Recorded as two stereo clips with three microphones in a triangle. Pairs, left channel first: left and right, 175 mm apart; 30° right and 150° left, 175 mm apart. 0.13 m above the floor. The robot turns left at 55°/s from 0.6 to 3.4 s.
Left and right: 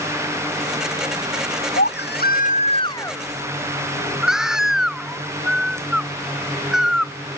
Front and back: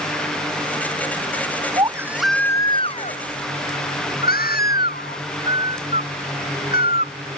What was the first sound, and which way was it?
A baby crying, 85° left.